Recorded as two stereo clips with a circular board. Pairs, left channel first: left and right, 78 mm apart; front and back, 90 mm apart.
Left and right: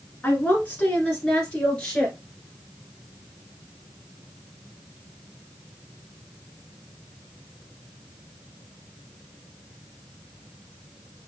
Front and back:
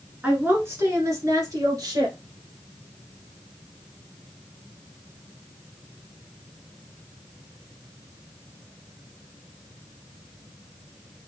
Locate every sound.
0.2 s a woman speaking: 125° left, 1.4 m; by 2.2 s 165° left, 2.0 m